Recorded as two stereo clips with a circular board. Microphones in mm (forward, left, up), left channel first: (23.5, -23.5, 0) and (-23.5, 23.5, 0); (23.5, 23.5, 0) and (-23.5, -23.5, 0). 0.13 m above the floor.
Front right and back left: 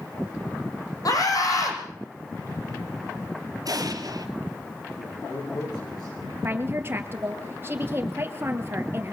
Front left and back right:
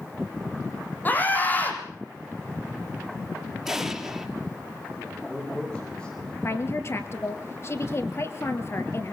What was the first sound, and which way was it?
A scream, 15° right.